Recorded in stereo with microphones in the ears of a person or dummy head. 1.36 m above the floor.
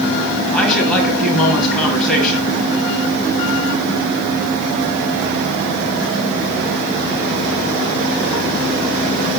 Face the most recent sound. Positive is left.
turn(degrees=10)  # may be behind; listen again after turning